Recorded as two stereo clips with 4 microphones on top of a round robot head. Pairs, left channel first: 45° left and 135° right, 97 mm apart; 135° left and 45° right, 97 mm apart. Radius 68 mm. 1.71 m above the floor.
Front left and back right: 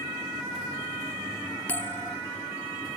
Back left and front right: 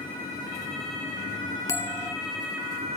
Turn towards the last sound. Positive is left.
turn(degrees=100)